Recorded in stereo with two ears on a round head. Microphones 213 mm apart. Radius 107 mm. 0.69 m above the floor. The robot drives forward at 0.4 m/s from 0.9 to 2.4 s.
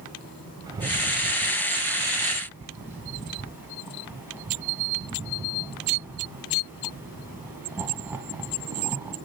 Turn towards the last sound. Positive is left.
turn(degrees=-10)  # may be behind; listen again after turning